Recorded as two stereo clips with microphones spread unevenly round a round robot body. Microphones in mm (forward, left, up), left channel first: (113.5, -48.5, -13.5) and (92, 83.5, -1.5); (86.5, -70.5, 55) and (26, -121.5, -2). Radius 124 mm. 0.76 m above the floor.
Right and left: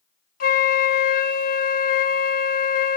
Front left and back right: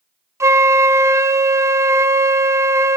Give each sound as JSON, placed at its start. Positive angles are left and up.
{"t": 0.4, "sound": "a flute", "azimuth_deg": -95, "distance_m": 0.7}